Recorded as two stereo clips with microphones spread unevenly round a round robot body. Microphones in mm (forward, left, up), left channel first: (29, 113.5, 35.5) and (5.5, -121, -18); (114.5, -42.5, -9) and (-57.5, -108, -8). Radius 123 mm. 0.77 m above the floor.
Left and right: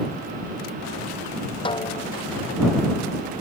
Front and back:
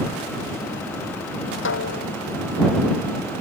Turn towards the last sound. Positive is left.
turn(degrees=15)